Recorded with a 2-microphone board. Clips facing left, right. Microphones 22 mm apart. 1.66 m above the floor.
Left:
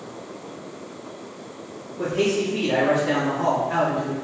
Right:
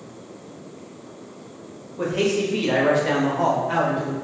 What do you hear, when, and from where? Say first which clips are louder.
2.0 s a man speaking: even; 45° right (ahead or behind), 1.2 m; by 4.1 s 70° right (ahead or behind), 1.1 m